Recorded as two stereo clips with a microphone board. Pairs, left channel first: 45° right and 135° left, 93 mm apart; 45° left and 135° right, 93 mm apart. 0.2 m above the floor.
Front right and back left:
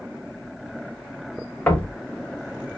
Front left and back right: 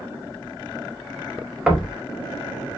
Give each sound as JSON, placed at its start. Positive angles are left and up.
{"t": 1.7, "sound": "knocking", "azimuth_deg": -75, "distance_m": 0.6}